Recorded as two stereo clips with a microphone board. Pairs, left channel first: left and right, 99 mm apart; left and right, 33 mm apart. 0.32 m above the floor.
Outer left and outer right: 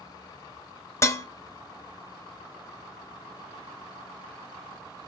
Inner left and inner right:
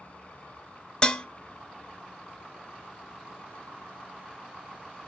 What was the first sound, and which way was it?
Dishes clattering, 30° left (ahead or behind).